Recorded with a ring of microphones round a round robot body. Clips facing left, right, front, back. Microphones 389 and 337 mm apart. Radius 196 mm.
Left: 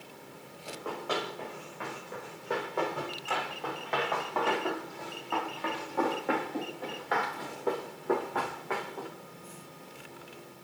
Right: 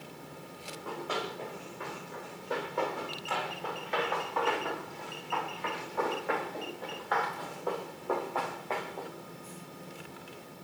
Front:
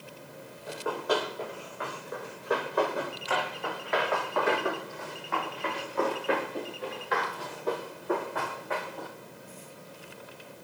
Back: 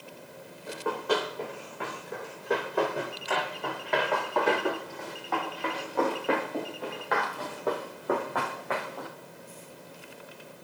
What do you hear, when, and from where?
0.7 s running footsteps: 120° left, 7.5 m; by 9.1 s 165° left, 3 m